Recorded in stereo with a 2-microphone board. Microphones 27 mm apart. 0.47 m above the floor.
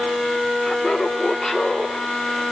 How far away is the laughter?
About 1.0 m.